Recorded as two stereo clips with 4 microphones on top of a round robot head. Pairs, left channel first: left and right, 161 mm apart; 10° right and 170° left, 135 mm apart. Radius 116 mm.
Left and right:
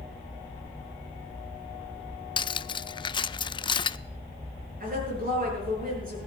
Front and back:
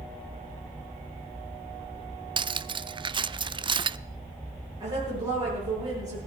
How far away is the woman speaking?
About 9 m.